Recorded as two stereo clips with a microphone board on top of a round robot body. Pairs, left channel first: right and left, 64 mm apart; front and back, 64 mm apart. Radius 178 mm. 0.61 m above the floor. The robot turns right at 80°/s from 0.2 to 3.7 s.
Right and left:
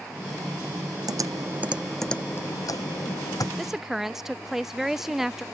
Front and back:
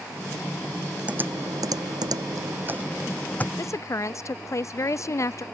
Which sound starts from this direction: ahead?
A woman speaking, at 3.6 s.